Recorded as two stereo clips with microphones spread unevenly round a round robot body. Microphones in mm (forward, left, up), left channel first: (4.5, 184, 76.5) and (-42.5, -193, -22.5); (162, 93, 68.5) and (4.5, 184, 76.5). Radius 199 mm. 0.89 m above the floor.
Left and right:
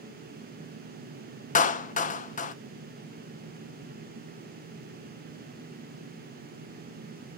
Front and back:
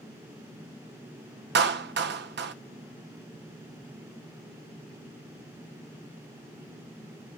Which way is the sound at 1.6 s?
160° left.